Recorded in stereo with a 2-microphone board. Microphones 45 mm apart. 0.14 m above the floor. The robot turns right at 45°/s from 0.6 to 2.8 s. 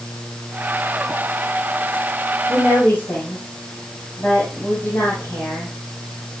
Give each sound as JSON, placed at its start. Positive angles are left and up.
{"t": 2.5, "sound": "a woman speaking", "side_deg": 35, "distance_m": 7.0}